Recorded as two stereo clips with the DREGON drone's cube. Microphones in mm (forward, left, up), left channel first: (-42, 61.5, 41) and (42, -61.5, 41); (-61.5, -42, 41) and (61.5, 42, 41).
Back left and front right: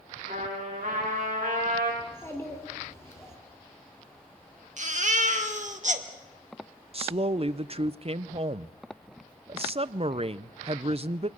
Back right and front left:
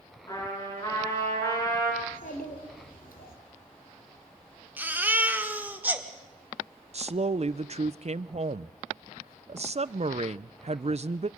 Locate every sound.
0.3 s a trumpet: 80° right, 7 m
2.0 s a child speaking: 160° right, 3 m
4.8 s a baby crying: 40° right, 1.5 m
6.9 s a woman speaking: 10° right, 0.5 m